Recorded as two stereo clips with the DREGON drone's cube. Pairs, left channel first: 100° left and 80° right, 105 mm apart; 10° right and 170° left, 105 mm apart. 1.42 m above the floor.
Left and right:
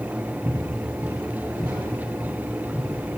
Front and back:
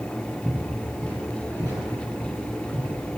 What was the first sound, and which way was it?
Footsteps, 110° right.